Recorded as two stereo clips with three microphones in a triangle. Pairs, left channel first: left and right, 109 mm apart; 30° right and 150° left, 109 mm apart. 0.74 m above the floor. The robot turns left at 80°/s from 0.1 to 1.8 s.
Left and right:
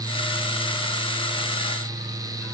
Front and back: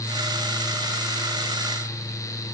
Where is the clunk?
I don't hear a clunk.